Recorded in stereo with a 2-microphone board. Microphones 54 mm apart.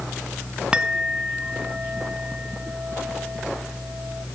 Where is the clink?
20° right (ahead or behind).